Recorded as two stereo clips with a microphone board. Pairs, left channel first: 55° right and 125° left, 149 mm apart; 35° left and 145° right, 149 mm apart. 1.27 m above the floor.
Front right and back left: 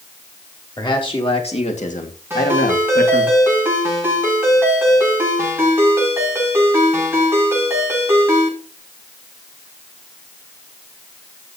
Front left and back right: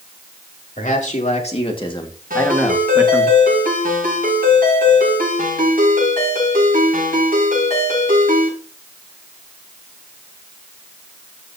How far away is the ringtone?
About 7 m.